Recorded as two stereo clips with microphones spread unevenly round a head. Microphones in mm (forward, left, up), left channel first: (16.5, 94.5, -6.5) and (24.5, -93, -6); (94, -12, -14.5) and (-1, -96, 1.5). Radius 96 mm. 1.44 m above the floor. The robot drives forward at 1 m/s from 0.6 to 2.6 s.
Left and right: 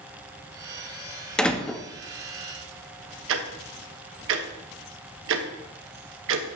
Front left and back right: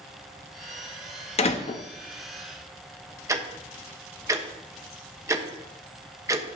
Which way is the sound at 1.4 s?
5° left.